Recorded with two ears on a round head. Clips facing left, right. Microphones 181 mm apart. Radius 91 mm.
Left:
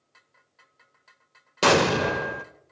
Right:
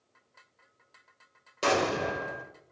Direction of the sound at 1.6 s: 70° left (ahead or behind).